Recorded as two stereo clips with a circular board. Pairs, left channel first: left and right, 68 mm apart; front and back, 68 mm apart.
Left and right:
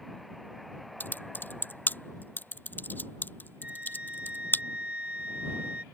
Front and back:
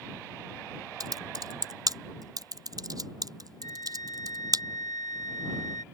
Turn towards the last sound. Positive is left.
turn(degrees=-20)